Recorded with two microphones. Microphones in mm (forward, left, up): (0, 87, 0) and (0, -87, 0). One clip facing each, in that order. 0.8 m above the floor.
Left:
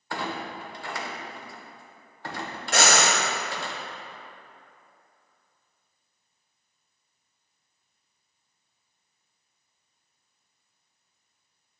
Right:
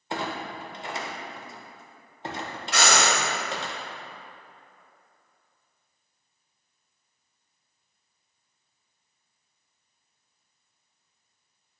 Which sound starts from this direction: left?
Breathing, at 2.7 s.